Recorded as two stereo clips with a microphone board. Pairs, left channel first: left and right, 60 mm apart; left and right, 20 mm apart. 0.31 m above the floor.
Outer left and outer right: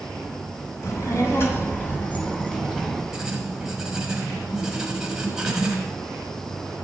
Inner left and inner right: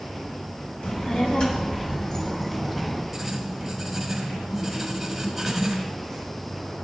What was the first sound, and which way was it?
A child speaking, 55° left (ahead or behind).